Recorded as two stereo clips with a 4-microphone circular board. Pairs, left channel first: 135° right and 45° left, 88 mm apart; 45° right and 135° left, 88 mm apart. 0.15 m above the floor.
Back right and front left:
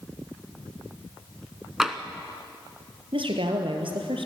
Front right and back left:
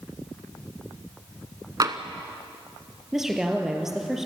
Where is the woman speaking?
50° left, 3 m.